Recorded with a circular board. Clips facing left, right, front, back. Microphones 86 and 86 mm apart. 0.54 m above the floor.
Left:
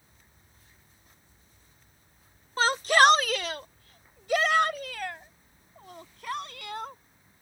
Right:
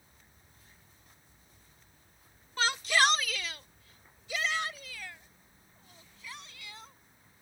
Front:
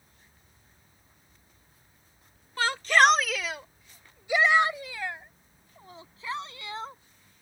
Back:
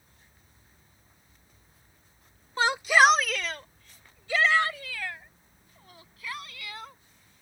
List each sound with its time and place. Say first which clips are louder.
2.6 s a shout: left 7 dB, back 1 dB; 125° left; by 7.0 s 60° left